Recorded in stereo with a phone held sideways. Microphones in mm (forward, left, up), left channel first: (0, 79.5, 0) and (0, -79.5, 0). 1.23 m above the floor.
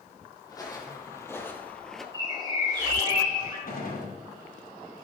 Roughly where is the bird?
Right.